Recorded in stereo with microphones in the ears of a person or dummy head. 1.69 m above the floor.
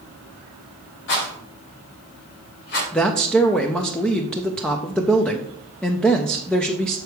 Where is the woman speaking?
Centre (ahead or behind), 0.7 m.